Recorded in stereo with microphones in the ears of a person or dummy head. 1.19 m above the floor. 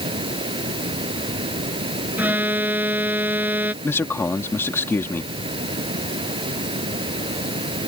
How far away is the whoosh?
I don't hear a whoosh.